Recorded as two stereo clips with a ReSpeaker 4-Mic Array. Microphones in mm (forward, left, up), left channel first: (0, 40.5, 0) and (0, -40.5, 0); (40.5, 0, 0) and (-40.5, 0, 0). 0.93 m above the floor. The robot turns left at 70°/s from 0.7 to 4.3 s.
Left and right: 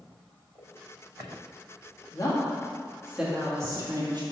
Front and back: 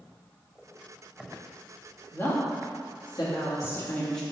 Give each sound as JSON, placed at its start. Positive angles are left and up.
{"t": 2.1, "sound": "a woman speaking", "azimuth_deg": 65, "distance_m": 1.9}